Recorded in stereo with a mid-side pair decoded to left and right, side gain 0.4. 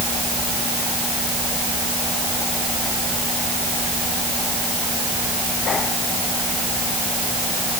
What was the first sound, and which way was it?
Only background noise.